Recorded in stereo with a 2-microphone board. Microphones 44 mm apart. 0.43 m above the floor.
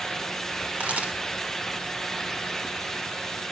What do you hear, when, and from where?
0.8 s a camera shutter: 35° right (ahead or behind), 1.3 m